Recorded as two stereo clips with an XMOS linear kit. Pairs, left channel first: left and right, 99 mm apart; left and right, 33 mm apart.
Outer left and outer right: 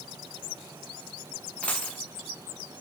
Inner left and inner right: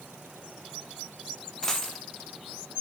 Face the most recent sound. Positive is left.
turn(degrees=15)  # may be behind; listen again after turning